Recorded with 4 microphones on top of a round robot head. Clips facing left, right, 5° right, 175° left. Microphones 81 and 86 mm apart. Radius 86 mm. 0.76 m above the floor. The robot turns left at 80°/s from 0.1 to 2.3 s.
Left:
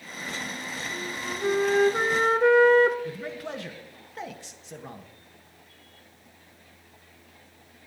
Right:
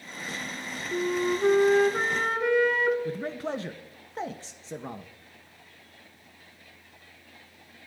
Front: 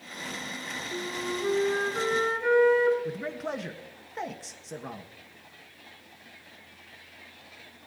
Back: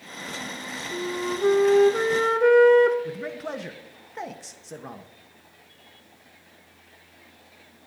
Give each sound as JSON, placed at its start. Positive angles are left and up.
{"t": 0.9, "sound": "a flute", "azimuth_deg": -105, "distance_m": 1.1}
{"t": 3.0, "sound": "a man speaking", "azimuth_deg": -95, "distance_m": 0.8}